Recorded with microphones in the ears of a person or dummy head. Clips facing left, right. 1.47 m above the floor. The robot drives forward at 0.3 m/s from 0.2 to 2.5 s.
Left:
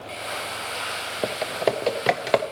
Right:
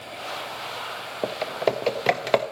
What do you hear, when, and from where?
1.2 s typing on a keyboard: 5° left (ahead or behind), 0.6 m